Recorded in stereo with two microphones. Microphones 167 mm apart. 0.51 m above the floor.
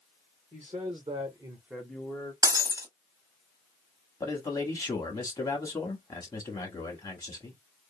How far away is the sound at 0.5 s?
About 1.4 m.